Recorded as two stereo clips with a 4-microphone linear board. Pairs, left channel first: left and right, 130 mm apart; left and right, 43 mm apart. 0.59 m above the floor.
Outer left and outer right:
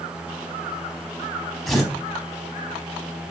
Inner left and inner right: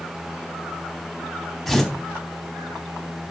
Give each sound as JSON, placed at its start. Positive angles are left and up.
{"t": 1.7, "sound": "tearing paper", "side_deg": 0, "distance_m": 4.0}